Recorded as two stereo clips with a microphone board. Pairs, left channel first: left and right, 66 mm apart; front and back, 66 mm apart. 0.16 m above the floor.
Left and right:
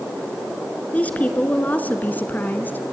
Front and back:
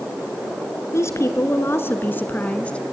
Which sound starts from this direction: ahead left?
A woman speaking, at 0.9 s.